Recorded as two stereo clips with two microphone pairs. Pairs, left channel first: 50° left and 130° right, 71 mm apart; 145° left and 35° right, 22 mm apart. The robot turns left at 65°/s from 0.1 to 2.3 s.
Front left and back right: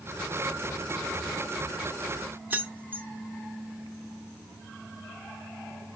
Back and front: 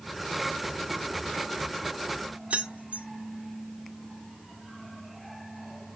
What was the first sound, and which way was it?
Keys jangling, 60° right.